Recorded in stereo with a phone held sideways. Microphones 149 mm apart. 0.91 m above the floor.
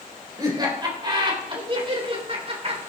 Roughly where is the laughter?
Right.